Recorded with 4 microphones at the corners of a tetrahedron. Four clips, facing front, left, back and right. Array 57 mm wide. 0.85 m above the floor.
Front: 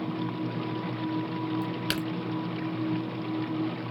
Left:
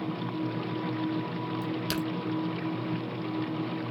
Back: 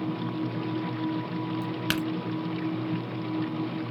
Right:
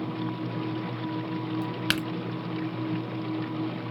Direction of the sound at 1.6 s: 115° right.